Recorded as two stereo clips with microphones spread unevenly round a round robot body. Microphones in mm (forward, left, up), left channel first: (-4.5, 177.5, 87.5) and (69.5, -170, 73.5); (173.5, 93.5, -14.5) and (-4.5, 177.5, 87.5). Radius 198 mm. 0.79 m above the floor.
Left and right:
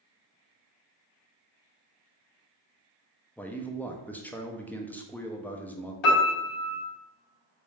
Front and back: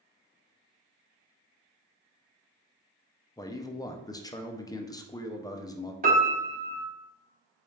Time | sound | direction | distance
3.4 | a man speaking | 15° left | 0.6 m
6.0 | a piano | 105° left | 1.0 m